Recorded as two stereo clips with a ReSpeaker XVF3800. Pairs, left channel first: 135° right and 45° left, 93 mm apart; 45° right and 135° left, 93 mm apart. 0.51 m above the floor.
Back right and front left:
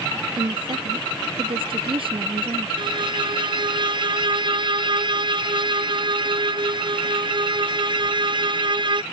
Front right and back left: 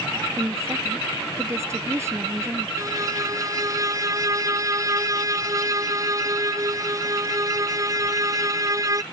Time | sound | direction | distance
0.4 | a woman speaking | 75° left | ?
2.8 | a violin | 80° left | ?